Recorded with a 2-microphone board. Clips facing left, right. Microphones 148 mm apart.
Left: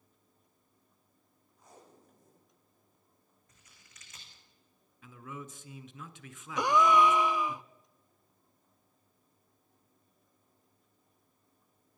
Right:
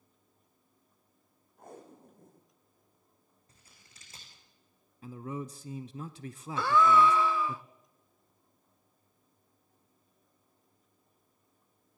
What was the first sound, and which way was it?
Tape being pulled, 60° right (ahead or behind).